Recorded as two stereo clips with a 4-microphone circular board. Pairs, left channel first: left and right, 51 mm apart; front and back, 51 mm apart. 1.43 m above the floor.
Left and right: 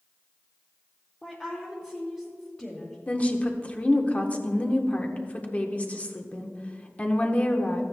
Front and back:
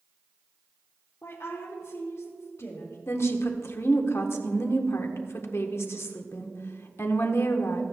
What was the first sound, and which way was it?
A woman speaking, 15° left.